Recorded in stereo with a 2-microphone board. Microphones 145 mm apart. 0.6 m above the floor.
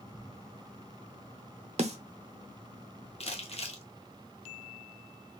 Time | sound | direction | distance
1.8 | a snare drum | 50° right (ahead or behind) | 0.8 m
3.2 | crumpling | 45° left (ahead or behind) | 1.0 m